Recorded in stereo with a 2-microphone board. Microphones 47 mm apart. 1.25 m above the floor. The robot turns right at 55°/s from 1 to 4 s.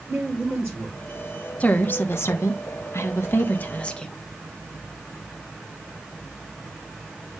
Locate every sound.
0.1 s a woman speaking: 65° right (ahead or behind), 7 m
1.6 s a woman speaking: 35° left, 1.4 m; by 4.2 s 165° left, 1.4 m